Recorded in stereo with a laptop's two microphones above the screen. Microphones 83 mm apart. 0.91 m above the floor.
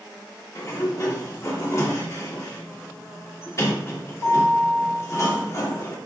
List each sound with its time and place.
0.6 s a sliding door: 35° left (ahead or behind), 1.4 m